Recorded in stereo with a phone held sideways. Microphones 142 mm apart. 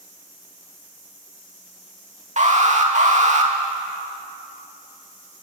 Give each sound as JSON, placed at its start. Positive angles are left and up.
{"t": 2.4, "sound": "an alarm", "side_deg": -55, "distance_m": 2.5}